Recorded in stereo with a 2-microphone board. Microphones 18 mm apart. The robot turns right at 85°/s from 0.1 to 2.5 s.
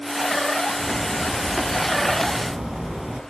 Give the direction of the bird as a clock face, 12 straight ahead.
8 o'clock.